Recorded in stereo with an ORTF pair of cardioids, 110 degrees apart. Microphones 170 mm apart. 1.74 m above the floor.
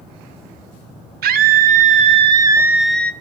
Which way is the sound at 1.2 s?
65° right.